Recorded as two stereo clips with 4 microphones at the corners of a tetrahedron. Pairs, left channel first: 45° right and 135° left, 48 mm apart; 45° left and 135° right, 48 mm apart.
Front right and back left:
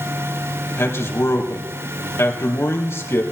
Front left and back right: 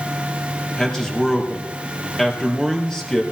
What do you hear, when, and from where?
0.8 s a man speaking: 35° right, 3.5 m